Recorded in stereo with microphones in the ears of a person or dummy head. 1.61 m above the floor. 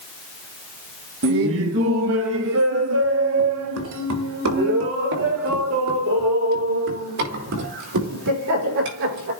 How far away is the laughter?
About 1.9 m.